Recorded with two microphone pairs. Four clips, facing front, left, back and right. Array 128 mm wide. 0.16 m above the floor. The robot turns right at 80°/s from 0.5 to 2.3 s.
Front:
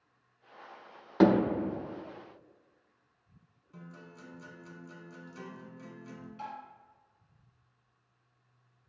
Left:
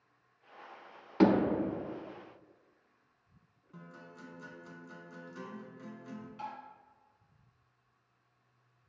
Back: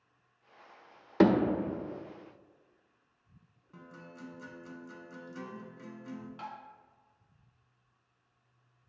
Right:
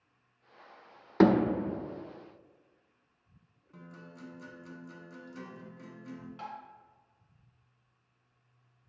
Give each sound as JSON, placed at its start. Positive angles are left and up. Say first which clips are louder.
{"t": 1.2, "sound": "hammering", "louder": "right 2 dB, front 1 dB", "azimuth_deg": -80, "distance_m": 1.2}
{"t": 3.7, "sound": "a guitar", "louder": "right 1 dB, back 1 dB", "azimuth_deg": 165, "distance_m": 0.6}
{"t": 6.4, "sound": "tapping", "louder": "left 1 dB, front 2 dB", "azimuth_deg": -140, "distance_m": 0.9}